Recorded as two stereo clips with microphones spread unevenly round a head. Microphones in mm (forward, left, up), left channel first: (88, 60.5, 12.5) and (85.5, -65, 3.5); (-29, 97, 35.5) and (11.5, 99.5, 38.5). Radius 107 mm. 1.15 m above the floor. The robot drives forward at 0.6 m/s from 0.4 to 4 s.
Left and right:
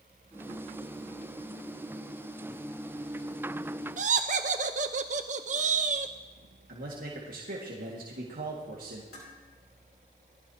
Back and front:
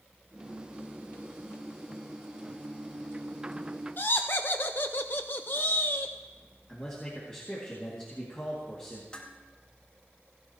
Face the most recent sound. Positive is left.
turn(degrees=110)